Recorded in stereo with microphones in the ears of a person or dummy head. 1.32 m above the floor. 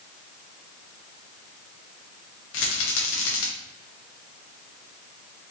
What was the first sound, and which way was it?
A rattle, 75° left (ahead or behind).